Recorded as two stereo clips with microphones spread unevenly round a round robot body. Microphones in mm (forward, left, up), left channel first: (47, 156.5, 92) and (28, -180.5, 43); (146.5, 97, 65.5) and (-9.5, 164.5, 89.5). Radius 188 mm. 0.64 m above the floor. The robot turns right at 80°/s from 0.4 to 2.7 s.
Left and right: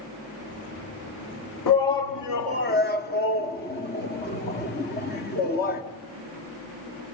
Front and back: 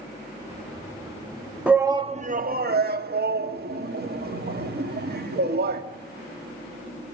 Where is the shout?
65° left, 1.7 m; by 5.8 s 150° left, 1.7 m.